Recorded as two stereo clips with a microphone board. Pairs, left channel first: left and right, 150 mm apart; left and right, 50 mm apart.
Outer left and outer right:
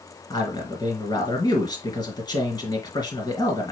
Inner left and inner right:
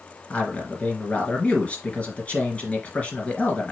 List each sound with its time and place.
0.3 s a man speaking: 30° left (ahead or behind), 1.8 m